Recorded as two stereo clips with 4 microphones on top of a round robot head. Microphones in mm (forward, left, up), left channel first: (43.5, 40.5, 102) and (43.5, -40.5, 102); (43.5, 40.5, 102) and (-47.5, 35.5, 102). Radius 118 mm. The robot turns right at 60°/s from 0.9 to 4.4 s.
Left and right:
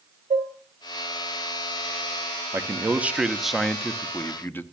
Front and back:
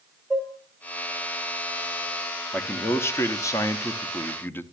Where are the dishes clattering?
85° right, 1.9 m.